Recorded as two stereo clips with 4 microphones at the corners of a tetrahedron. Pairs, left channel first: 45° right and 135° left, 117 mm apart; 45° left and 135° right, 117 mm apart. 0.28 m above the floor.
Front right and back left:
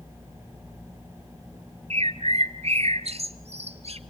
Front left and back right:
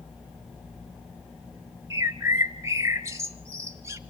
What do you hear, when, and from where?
1.9 s a bird: 160° left, 1.5 m